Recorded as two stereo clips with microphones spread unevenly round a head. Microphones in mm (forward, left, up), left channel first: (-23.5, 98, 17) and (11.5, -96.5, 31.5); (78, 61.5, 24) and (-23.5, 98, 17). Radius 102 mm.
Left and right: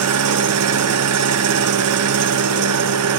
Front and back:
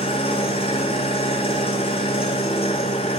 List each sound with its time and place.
0.0 s an engine running: 80° right, 0.7 m